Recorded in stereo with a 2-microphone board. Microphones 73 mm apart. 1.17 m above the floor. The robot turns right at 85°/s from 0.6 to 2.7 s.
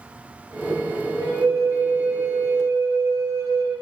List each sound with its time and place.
1.2 s a flute: 135° left, 2.0 m; by 3.7 s 95° right, 2.0 m